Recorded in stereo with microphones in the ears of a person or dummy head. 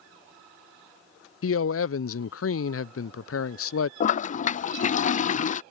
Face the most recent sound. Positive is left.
turn(degrees=50)  # may be behind; listen again after turning